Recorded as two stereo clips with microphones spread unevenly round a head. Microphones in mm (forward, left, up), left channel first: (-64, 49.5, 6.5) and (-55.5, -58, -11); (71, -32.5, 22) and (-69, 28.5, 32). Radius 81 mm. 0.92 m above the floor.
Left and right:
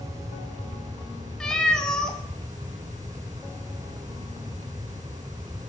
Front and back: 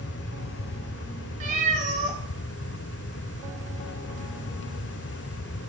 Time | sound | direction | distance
1.4 | a cat meowing | 165° left | 1.0 m